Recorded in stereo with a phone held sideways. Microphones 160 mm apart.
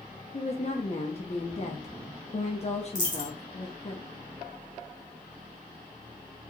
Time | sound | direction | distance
0.3 | a woman speaking | 40° left (ahead or behind) | 0.7 m
3.0 | a dropped coin | 50° left (ahead or behind) | 1.6 m